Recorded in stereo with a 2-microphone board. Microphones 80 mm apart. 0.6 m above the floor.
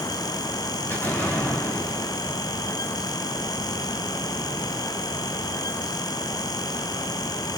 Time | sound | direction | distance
0.9 | an explosion | 25° left (ahead or behind) | 3 m